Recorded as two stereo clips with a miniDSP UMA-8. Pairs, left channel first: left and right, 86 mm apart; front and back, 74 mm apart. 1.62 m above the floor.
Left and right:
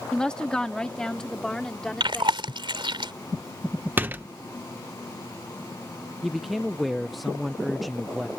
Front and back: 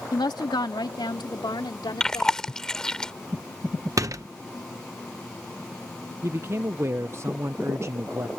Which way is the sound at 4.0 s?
150° right.